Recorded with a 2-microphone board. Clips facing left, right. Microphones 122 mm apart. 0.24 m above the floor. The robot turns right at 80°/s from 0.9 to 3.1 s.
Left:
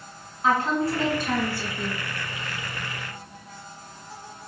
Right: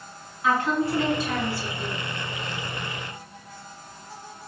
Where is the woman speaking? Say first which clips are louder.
Left 1 dB; 45° left, 1.7 m; by 2.0 s 135° left, 1.7 m.